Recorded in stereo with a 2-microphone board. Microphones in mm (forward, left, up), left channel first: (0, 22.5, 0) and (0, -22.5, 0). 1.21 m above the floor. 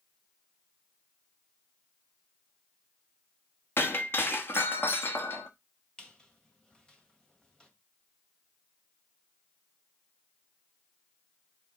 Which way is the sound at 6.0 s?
20° left (ahead or behind).